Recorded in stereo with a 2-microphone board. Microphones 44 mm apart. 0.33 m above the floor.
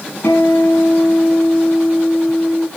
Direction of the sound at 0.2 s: 70° left (ahead or behind).